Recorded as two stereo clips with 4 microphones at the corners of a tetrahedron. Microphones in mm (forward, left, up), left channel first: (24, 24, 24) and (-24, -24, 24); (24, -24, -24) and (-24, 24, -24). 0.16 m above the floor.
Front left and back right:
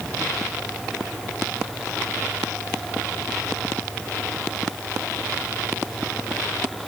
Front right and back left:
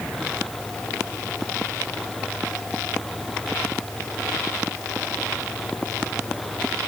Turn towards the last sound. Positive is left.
No sound to turn to.